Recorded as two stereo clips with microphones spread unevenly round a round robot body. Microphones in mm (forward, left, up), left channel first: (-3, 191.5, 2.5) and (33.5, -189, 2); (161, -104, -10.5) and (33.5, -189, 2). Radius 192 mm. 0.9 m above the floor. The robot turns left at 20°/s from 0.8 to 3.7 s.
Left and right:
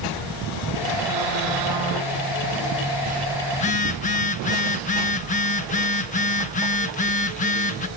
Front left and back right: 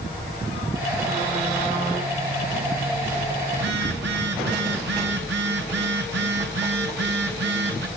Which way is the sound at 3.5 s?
170° left.